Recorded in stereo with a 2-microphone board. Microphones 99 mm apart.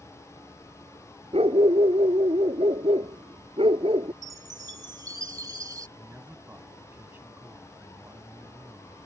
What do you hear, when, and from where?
1.3 s a dog barking: 90° right; by 4.1 s 70° right (ahead or behind)
4.2 s a chime: 35° right (ahead or behind)
6.0 s a man speaking: 20° right (ahead or behind)